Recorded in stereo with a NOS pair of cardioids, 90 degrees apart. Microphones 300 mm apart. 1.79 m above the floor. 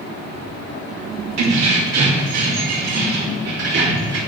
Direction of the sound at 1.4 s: 70° right.